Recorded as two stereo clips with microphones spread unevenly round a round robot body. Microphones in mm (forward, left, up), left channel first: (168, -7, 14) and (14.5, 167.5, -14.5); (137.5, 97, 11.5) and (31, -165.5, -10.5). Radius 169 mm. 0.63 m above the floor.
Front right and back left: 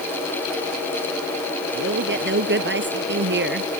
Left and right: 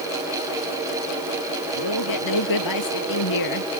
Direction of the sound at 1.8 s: 95° left.